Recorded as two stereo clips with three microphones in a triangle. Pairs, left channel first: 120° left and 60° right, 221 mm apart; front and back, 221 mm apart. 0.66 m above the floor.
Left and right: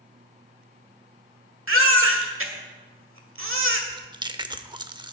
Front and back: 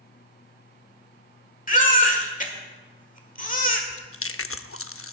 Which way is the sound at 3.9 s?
5° left.